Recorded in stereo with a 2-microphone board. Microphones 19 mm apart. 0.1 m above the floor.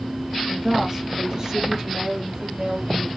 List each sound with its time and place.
0.5 s a woman speaking: 15° right (ahead or behind), 1.2 m; by 3.1 s 50° right (ahead or behind), 2 m